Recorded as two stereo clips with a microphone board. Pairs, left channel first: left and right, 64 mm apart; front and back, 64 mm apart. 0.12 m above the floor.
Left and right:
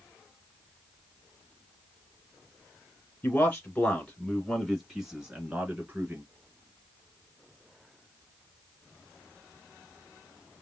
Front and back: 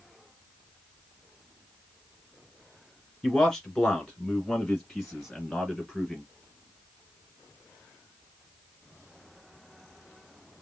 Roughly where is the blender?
I don't hear a blender.